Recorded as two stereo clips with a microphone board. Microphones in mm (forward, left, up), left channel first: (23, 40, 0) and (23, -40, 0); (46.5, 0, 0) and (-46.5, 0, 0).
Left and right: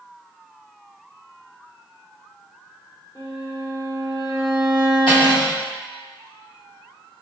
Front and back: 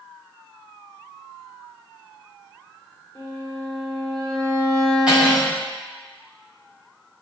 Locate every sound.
3.1 s a violin: 55° left, 1.5 m
5.1 s cutlery clinking: 100° left, 1.9 m